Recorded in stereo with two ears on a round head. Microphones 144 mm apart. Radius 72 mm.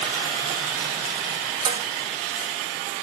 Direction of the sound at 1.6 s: 30° right (ahead or behind).